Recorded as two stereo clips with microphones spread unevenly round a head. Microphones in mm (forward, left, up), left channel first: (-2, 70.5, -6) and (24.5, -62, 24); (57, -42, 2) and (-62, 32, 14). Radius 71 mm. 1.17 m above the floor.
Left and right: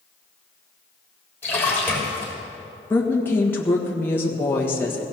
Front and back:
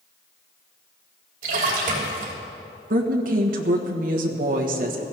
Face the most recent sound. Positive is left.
turn(degrees=170)